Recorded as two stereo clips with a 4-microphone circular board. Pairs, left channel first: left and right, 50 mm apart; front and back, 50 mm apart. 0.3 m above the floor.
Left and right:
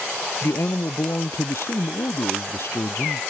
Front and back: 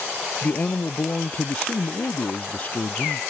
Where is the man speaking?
55° left.